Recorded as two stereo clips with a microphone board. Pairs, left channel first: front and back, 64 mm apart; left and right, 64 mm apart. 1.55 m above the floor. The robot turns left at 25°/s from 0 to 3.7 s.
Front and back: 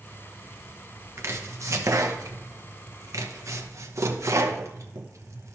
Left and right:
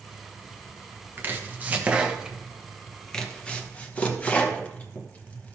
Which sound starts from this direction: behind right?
Chopping, at 1.2 s.